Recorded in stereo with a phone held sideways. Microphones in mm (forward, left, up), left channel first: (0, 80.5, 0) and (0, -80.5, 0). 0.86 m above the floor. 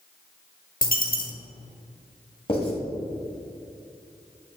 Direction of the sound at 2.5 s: 35° left (ahead or behind).